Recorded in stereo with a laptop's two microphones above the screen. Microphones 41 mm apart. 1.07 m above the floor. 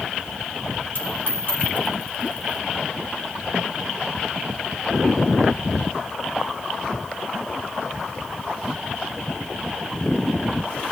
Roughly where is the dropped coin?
Left.